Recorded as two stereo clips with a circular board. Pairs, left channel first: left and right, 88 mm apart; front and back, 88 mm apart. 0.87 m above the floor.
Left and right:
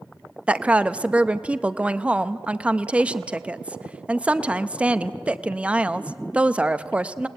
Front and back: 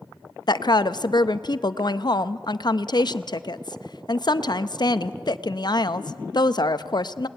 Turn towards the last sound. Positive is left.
turn(degrees=-15)